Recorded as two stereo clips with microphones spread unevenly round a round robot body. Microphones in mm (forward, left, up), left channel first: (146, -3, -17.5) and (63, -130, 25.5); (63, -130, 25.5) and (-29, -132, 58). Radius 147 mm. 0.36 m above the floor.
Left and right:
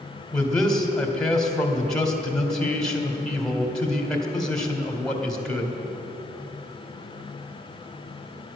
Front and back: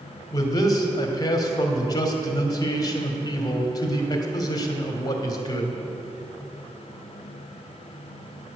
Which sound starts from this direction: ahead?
A man speaking, at 0.3 s.